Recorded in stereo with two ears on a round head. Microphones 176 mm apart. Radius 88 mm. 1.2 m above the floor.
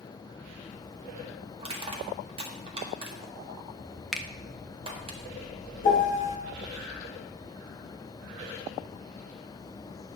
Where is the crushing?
30° right (ahead or behind), 1.7 m.